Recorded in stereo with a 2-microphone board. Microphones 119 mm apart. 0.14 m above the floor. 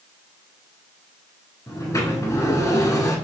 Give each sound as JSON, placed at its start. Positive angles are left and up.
{"t": 1.7, "sound": "a sliding door", "side_deg": 30, "distance_m": 1.2}